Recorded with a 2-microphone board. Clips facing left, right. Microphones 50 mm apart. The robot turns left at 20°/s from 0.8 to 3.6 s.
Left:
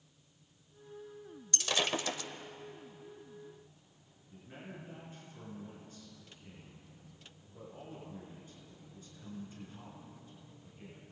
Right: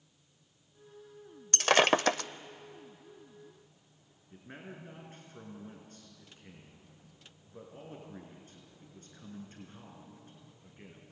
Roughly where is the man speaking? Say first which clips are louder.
Right 1 dB; right.